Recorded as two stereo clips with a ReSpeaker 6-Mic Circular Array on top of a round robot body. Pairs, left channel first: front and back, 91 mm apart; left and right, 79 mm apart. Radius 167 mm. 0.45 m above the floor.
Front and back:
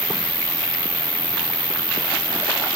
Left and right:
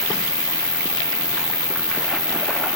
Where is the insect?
125° left, 1.0 m.